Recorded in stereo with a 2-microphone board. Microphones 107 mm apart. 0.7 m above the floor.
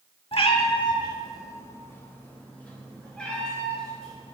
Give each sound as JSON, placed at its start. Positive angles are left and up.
{"t": 0.3, "sound": "a cat meowing", "side_deg": 55, "distance_m": 0.8}